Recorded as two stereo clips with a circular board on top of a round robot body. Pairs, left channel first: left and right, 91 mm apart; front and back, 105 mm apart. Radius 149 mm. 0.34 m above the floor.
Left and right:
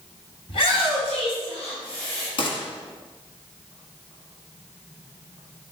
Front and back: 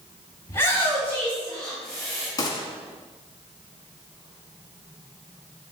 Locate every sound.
0.5 s a shout: 65° left, 3 m; by 2.3 s 90° left, 5 m
2.4 s a gunshot: 60° left, 1.4 m